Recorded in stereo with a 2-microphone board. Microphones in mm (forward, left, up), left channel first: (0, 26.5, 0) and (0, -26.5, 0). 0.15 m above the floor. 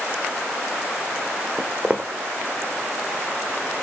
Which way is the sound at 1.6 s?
30° right (ahead or behind).